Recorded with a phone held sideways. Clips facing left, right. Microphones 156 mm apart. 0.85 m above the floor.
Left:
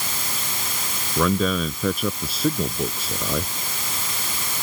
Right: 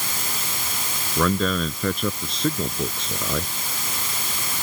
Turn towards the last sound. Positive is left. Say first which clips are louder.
# left 1 dB
turn(degrees=5)  # may be behind; listen again after turning